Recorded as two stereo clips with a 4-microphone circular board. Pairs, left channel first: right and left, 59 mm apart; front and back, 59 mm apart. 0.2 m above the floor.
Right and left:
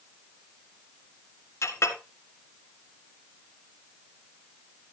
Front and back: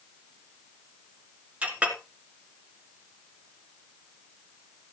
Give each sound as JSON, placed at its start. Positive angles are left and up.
{"t": 1.6, "sound": "a clink", "azimuth_deg": -115, "distance_m": 1.7}